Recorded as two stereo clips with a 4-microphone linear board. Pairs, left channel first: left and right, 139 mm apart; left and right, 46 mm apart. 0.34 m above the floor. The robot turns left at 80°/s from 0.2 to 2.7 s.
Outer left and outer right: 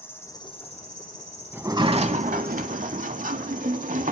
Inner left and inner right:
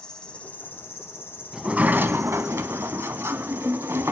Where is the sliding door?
15° right, 0.6 m; by 4.1 s 105° right, 0.6 m.